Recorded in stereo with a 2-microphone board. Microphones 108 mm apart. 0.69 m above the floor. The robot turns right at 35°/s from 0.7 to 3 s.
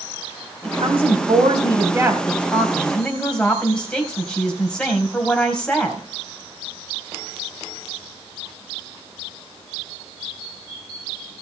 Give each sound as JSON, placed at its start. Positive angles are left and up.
{"t": 0.6, "sound": "a woman speaking", "azimuth_deg": -75, "distance_m": 4.0}